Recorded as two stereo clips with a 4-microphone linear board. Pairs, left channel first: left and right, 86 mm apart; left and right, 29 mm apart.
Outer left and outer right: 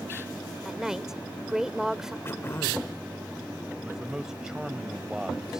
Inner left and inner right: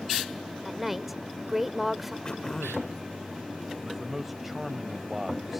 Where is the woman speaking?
5° right (ahead or behind).